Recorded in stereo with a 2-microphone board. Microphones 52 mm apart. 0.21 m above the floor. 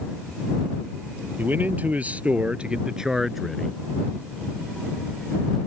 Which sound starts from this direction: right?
A man speaking, at 1.4 s.